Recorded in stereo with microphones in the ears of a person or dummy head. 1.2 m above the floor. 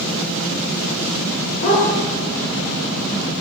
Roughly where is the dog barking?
Left.